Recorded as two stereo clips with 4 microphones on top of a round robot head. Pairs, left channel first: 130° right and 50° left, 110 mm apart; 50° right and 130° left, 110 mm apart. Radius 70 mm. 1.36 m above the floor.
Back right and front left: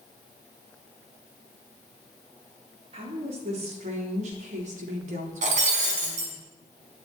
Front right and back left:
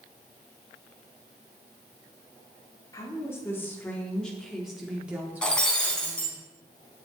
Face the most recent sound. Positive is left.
turn(degrees=35)